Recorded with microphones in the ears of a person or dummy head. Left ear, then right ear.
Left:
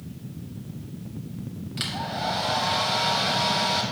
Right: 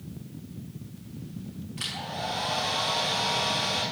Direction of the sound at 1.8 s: 60° left (ahead or behind).